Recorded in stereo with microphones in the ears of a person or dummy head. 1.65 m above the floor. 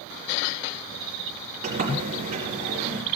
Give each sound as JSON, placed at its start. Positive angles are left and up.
{"t": 1.6, "sound": "a sliding door", "side_deg": -50, "distance_m": 3.5}